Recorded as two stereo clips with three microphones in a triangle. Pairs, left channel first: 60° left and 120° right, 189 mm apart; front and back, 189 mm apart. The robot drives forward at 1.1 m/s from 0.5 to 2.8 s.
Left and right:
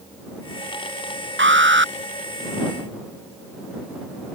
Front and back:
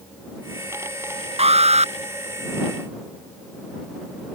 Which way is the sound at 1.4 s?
125° right.